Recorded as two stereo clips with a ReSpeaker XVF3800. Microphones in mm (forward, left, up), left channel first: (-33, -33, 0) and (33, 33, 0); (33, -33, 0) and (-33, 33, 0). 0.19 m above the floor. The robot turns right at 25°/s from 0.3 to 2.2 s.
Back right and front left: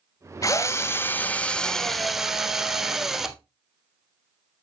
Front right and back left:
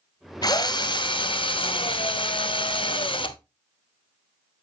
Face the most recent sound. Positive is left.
turn(degrees=-40)